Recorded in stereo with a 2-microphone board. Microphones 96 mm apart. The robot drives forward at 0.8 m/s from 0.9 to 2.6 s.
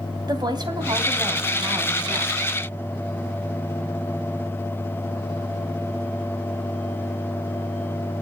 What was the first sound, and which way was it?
A woman speaking, 45° right (ahead or behind).